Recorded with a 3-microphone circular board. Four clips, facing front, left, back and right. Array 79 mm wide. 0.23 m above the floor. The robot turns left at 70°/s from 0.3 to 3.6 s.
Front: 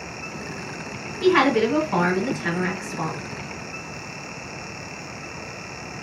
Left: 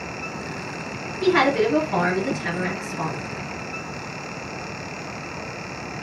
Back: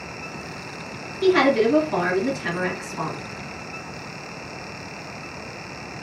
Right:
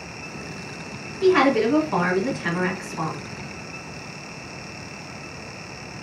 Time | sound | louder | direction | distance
1.2 | a woman speaking | right 1 dB, back 1 dB | straight ahead | 1.9 m